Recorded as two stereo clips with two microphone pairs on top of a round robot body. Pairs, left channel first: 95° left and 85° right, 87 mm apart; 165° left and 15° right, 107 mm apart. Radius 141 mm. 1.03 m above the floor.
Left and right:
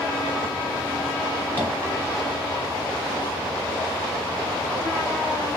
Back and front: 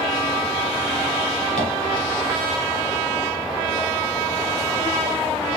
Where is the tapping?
165° left, 1.7 m.